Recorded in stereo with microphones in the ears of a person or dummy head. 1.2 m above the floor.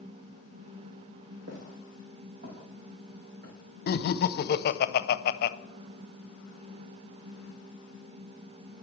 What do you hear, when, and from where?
1.5 s footsteps: 50° right (ahead or behind), 2.5 m; by 4.5 s 70° right (ahead or behind), 4.5 m
3.9 s laughter: 50° left (ahead or behind), 0.6 m